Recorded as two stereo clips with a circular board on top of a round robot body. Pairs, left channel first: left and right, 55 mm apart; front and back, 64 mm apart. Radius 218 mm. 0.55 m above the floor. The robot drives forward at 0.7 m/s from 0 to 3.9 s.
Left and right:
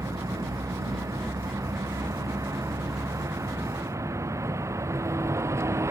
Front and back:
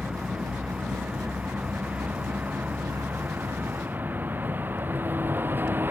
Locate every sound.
0.0 s a vehicle: 100° right; by 5.9 s 120° right